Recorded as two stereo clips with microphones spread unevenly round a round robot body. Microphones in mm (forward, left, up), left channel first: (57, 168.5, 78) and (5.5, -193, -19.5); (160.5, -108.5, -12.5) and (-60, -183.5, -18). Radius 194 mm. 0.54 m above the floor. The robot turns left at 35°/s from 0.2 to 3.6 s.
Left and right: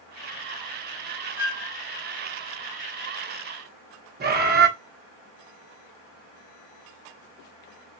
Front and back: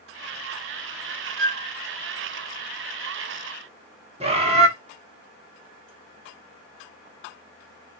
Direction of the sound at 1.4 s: 170° right.